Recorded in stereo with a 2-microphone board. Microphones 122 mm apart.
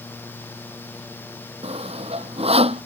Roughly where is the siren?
No siren in this recording.